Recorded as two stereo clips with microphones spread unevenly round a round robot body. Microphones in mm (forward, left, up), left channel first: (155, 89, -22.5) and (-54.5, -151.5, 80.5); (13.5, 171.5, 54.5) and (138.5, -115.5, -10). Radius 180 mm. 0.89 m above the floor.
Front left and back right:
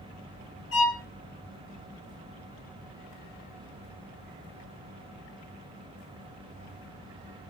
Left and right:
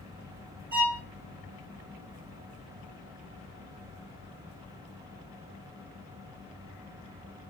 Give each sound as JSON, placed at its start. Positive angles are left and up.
{"t": 0.7, "sound": "a violin", "azimuth_deg": 0, "distance_m": 1.1}